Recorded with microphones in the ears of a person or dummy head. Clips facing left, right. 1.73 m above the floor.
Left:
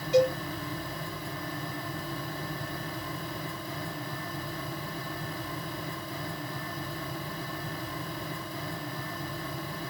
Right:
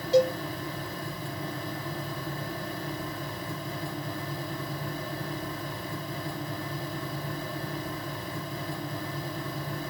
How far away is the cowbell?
About 3.5 m.